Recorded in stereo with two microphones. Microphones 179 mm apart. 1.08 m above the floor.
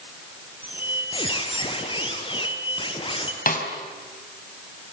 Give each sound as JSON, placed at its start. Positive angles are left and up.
{"t": 0.6, "sound": "a squeak", "side_deg": 30, "distance_m": 3.0}
{"t": 3.5, "sound": "a snare drum", "side_deg": 50, "distance_m": 4.0}